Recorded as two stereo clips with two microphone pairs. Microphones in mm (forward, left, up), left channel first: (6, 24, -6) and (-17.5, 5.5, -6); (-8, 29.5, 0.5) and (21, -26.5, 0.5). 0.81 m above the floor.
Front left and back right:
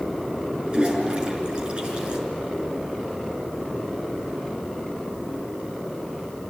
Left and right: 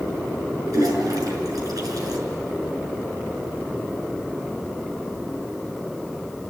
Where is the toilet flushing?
85° right, 6 m.